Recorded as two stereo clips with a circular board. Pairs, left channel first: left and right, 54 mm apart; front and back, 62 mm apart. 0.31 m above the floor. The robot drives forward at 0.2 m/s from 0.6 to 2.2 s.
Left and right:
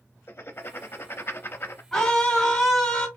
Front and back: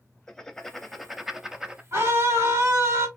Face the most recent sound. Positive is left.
turn(degrees=170)